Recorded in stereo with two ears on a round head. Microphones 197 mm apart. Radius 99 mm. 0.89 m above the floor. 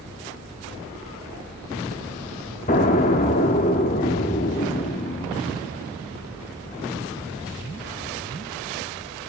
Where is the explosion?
35° left (ahead or behind), 1.0 m.